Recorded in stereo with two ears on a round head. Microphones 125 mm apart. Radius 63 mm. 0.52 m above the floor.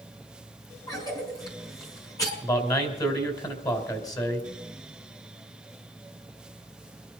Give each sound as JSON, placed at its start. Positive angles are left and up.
{"t": 0.9, "sound": "a cough", "side_deg": 25, "distance_m": 4.5}
{"t": 2.4, "sound": "a man speaking", "side_deg": 25, "distance_m": 3.0}